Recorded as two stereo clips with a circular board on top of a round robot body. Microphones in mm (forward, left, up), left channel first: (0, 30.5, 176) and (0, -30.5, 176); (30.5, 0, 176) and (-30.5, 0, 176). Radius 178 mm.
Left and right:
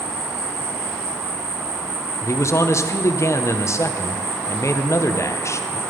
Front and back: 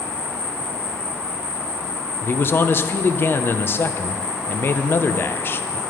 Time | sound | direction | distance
0.0 | an insect | 120° right | 4.5 m
2.2 | a man speaking | 55° left | 0.9 m